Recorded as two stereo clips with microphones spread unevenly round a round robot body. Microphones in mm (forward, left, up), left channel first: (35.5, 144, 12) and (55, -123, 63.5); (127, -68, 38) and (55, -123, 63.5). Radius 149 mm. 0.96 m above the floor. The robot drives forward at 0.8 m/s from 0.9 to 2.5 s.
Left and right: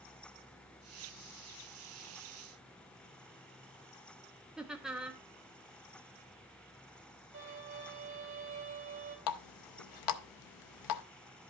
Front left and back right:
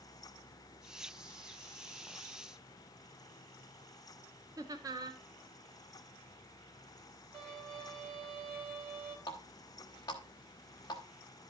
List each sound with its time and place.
4.6 s laughter: 170° left, 0.6 m
7.3 s a violin: 155° right, 3 m
9.3 s a running tap: 105° left, 0.6 m